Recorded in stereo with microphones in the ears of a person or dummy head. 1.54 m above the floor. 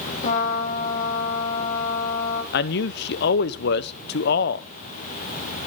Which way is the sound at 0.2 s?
50° left (ahead or behind).